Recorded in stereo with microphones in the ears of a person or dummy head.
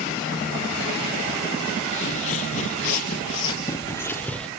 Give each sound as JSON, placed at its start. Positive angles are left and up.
{"t": 1.9, "sound": "footsteps", "side_deg": 45, "distance_m": 1.9}